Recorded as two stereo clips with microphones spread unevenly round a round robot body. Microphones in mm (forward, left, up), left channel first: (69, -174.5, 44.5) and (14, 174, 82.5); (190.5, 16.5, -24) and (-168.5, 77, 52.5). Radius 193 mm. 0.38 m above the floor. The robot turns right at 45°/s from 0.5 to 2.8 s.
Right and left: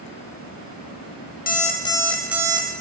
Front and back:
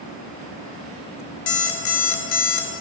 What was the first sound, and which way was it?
An alarm clock, 30° right.